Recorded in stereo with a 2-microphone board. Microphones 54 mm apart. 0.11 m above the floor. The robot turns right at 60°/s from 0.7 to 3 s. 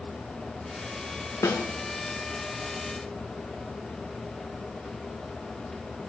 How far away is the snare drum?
About 2 m.